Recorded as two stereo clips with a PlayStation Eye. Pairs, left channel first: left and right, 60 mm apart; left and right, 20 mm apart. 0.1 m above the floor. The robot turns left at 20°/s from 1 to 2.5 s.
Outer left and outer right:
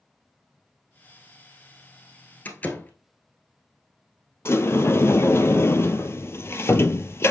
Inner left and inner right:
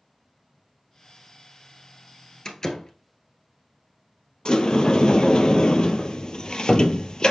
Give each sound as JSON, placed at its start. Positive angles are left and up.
{"t": 2.5, "sound": "a door slam", "side_deg": 30, "distance_m": 1.1}
{"t": 4.5, "sound": "a sliding door", "side_deg": 45, "distance_m": 0.6}